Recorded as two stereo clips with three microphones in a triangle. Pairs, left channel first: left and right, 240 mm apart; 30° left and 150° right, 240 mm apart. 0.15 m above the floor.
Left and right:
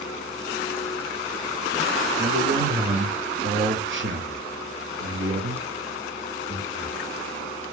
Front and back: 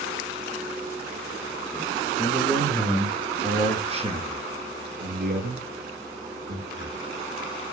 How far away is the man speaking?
About 2 m.